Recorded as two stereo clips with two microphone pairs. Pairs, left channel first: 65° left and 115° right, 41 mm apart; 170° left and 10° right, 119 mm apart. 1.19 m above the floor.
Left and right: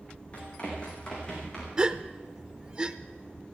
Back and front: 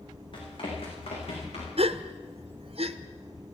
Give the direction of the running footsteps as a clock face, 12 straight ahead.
8 o'clock.